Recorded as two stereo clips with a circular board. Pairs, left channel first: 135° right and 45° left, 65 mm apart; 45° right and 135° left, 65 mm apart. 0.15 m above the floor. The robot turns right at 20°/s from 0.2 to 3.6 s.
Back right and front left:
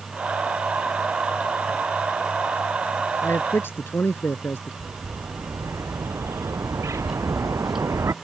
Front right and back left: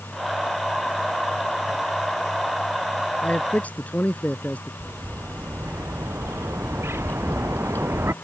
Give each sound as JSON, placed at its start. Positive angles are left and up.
{"t": 3.2, "sound": "a man speaking", "azimuth_deg": -110}
{"t": 4.8, "sound": "a bird", "azimuth_deg": 85}